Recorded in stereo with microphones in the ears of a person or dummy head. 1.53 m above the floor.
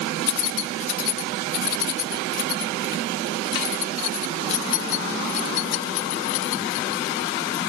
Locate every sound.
0.3 s keys jangling: 75° left (ahead or behind); by 7.6 s 85° left